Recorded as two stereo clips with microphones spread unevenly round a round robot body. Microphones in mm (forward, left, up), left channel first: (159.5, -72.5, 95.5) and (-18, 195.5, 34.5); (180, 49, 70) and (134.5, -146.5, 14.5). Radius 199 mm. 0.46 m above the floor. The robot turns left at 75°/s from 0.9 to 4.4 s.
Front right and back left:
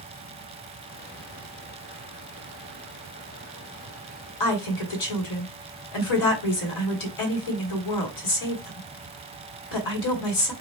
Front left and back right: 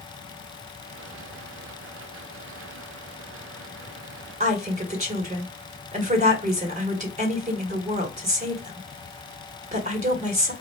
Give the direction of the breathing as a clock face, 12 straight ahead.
I don't hear breathing.